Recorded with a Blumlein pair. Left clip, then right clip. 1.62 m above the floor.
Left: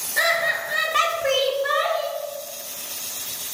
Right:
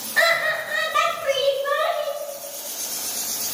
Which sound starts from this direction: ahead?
Laughter, at 0.2 s.